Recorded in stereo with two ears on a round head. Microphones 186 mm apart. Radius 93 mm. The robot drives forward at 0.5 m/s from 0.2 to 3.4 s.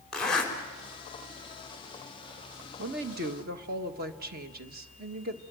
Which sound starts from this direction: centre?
A zipper, at 0.1 s.